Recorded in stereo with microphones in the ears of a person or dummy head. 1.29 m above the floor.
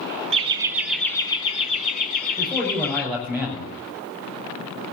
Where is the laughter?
35° right (ahead or behind), 0.8 m; by 3.0 s 50° left (ahead or behind), 2 m.